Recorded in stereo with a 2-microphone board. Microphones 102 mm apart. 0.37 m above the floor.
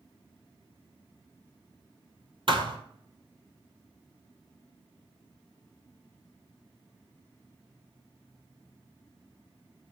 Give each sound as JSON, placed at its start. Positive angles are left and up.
{"t": 2.5, "sound": "a thud", "side_deg": -55, "distance_m": 1.5}